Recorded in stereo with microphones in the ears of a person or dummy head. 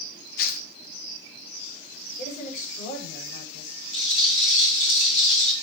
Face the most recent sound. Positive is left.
turn(degrees=40)  # may be behind; listen again after turning